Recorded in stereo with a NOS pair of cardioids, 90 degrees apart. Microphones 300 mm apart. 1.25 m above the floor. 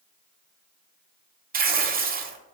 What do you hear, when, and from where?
1.5 s tearing paper: 30° right, 0.6 m